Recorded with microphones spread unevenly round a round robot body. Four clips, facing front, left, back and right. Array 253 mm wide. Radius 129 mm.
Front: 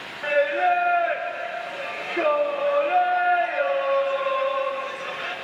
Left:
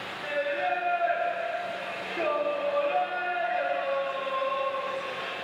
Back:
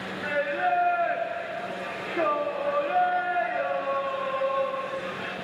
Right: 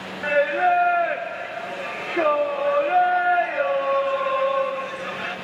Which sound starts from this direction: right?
Singing, at 0.2 s.